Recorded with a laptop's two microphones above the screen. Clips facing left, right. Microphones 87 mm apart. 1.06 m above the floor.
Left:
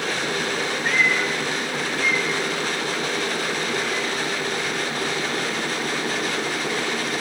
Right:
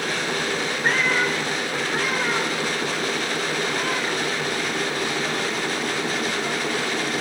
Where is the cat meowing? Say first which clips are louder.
Right 1 dB; 40° right (ahead or behind), 5 m; by 6.8 s 75° right (ahead or behind), 8 m.